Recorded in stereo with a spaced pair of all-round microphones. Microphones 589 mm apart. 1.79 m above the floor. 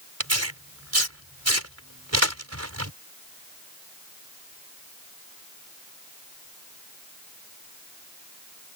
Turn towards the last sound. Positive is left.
turn(degrees=-25)  # may be behind; listen again after turning